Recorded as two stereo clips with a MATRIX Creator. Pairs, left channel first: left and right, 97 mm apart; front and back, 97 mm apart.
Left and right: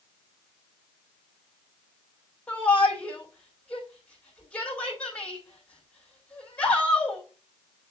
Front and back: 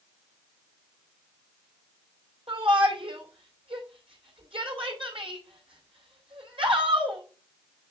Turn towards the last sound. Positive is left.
turn(degrees=165)